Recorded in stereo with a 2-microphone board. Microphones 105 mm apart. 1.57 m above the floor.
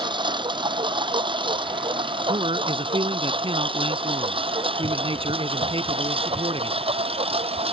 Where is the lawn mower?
45° right (ahead or behind); by 7.7 s 60° right (ahead or behind).